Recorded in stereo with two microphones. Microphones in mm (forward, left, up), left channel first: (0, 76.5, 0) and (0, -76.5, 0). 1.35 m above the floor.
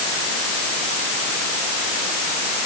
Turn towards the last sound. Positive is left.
No sound to turn to.